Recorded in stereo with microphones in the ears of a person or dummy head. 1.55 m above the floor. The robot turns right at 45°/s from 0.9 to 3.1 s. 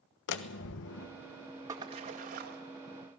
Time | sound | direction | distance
0.3 | a door slam | 65° left (ahead or behind) | 1.2 m
1.7 | a splash | 160° right | 1.9 m